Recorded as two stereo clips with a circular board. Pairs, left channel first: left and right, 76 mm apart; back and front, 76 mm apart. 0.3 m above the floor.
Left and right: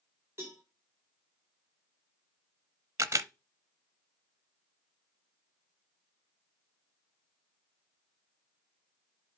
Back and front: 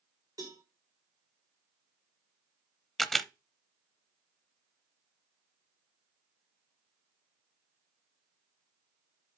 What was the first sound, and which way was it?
A cowbell, 35° right.